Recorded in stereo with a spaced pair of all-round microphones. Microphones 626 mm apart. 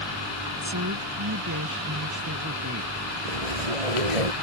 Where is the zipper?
80° right.